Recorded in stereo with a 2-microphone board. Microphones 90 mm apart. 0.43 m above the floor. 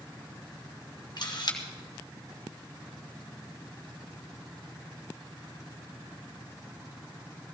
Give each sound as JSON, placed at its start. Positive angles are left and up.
{"t": 1.2, "sound": "a camera shutter", "side_deg": 50, "distance_m": 1.9}